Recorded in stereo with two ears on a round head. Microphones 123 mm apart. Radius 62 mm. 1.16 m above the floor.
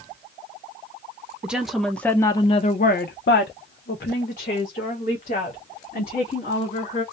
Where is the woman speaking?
5° right (ahead or behind), 0.8 m; by 7.0 s 50° left (ahead or behind), 2.5 m.